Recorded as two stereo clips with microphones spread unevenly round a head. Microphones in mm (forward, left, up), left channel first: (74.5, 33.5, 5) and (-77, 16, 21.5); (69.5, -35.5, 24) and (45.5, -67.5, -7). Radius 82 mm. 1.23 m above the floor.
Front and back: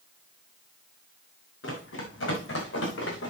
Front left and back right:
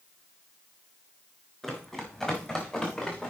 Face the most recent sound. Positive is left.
turn(degrees=0)